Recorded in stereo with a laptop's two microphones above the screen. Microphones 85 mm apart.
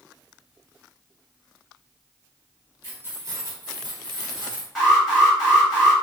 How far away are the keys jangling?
About 0.8 m.